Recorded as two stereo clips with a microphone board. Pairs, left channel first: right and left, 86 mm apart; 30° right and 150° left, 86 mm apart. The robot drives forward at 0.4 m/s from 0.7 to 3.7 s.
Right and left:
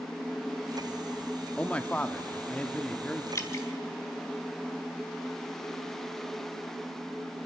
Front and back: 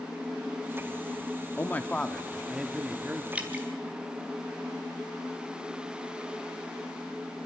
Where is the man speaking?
35° right, 0.7 m; by 3.2 s 160° right, 0.8 m.